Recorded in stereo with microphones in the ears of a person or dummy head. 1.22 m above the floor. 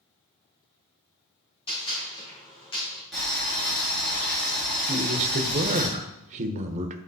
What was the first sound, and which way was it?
A gunshot, 30° left (ahead or behind).